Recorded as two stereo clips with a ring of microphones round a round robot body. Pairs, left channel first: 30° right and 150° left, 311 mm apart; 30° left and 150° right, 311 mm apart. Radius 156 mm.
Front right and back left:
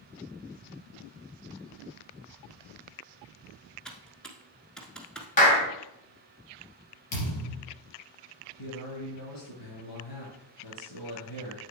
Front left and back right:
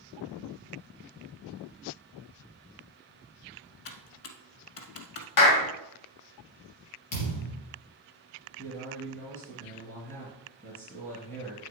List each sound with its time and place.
3.9 s typing on a keyboard: 60° left, 1.1 m
5.4 s a clap: 30° left, 2 m
7.1 s a thud: straight ahead, 4 m
8.6 s a man speaking: 50° right, 4.5 m